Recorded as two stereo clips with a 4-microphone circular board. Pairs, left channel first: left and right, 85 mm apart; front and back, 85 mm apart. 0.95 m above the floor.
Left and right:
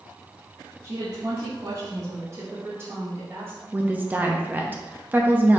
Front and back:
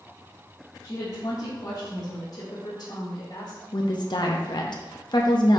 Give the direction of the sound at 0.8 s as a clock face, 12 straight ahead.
2 o'clock.